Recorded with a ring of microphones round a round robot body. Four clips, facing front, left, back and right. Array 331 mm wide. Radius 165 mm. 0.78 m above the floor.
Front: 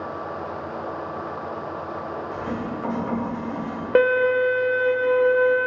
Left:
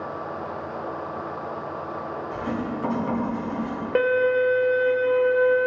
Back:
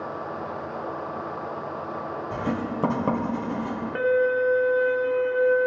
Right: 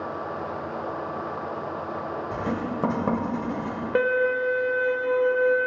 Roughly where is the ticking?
I don't hear ticking.